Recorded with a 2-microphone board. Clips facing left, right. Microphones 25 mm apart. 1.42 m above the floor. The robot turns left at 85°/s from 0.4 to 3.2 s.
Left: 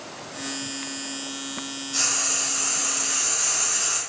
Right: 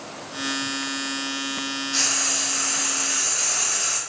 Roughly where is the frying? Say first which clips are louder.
Right 1 dB; ahead right.